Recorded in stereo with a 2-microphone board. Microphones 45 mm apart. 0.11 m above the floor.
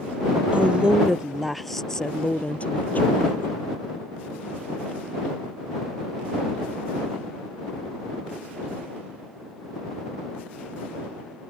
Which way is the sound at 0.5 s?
30° right (ahead or behind).